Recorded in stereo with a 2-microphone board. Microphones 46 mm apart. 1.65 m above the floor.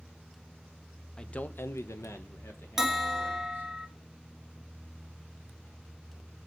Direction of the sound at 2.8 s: 10° right (ahead or behind).